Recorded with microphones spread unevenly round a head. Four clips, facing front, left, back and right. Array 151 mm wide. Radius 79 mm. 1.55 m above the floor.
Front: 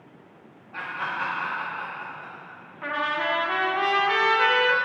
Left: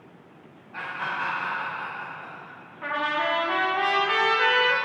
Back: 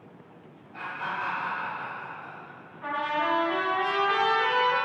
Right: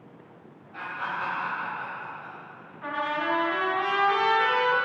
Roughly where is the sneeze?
No sneeze in this recording.